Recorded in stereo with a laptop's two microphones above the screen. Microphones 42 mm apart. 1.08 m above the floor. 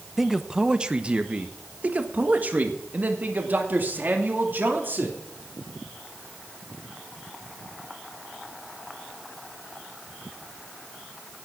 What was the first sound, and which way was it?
A man speaking, 5° right (ahead or behind).